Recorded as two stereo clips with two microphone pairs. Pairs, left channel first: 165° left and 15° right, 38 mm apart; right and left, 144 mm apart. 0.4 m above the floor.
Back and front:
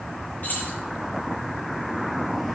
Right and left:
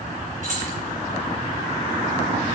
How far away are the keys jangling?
About 6 m.